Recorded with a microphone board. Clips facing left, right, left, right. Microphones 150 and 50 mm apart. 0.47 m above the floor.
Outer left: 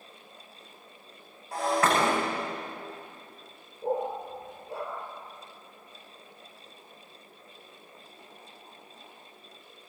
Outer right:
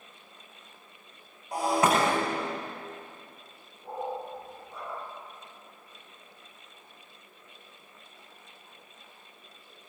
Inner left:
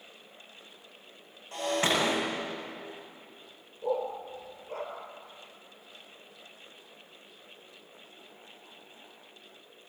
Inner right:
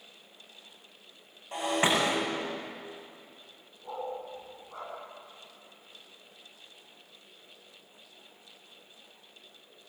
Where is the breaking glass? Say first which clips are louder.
Outer right 1 dB, inner right 1 dB; 15° right (ahead or behind), 9.5 m.